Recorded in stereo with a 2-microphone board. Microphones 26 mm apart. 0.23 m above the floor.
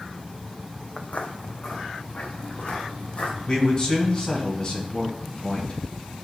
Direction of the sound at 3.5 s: 35° left (ahead or behind).